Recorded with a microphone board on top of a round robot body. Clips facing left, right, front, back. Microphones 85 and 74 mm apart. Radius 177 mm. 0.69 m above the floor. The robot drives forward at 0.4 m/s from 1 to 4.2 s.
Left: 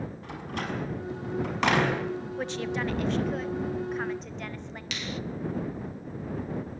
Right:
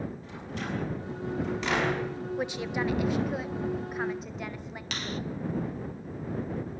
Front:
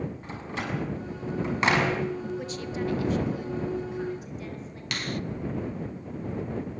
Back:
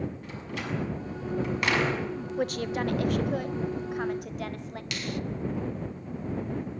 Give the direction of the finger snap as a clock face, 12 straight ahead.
1 o'clock.